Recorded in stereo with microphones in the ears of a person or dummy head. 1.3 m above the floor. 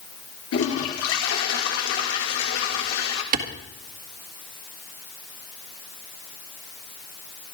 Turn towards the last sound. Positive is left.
turn(degrees=-50)  # may be behind; listen again after turning